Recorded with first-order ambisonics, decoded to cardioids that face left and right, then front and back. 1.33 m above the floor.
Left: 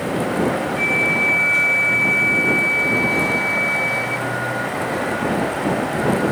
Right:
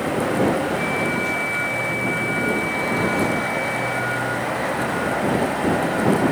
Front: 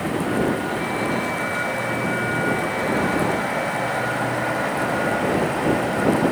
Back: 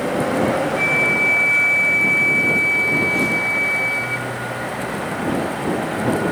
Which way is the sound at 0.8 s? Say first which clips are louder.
Left 5 dB, back 7 dB; 150° left.